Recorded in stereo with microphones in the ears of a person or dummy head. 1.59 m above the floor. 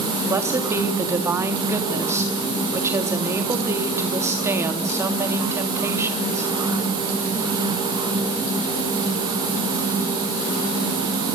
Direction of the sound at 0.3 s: 10° right (ahead or behind).